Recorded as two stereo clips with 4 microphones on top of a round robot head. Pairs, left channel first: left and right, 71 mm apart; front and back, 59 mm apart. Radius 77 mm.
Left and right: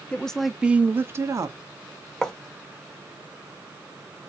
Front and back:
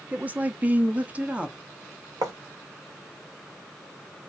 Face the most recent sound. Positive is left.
turn(degrees=175)